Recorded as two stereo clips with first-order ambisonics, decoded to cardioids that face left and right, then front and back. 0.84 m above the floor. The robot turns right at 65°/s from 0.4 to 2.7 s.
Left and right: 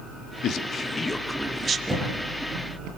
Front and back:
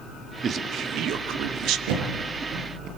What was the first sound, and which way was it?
A man speaking, 120° left.